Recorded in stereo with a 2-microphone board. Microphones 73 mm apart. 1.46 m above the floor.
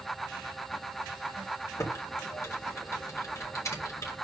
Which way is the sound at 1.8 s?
50° left (ahead or behind).